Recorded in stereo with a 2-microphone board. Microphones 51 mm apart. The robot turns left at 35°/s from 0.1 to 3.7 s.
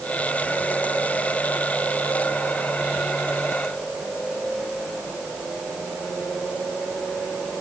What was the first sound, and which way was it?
Only background noise.